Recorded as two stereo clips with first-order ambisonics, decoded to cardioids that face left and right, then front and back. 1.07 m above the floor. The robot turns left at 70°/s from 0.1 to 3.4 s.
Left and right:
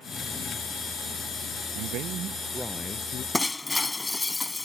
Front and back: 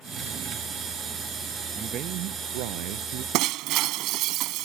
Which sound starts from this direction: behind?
Breaking glass, at 3.3 s.